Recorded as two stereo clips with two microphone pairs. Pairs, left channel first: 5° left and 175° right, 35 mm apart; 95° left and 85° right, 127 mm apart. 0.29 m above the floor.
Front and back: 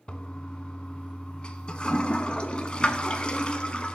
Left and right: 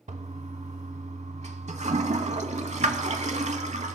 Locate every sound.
0.1 s a toilet flushing: 60° right, 0.7 m